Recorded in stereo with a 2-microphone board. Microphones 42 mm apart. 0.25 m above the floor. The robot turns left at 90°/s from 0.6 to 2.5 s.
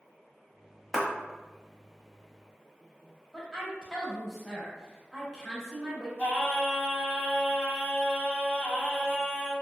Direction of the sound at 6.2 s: 55° left (ahead or behind).